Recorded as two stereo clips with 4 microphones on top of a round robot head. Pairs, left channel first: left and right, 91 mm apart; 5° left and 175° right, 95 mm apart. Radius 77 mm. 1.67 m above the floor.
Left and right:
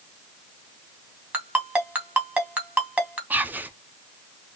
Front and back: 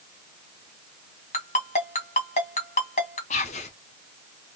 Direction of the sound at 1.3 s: 20° right.